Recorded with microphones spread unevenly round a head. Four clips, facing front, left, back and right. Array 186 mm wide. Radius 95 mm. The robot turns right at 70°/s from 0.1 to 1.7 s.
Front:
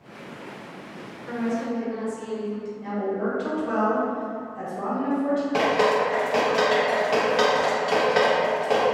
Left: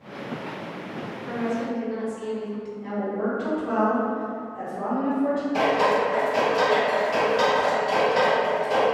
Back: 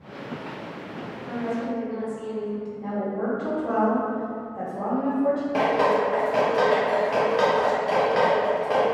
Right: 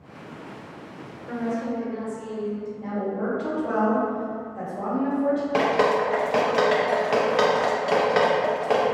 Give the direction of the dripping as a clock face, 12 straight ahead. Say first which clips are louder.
Left 1 dB, front 1 dB; 3 o'clock.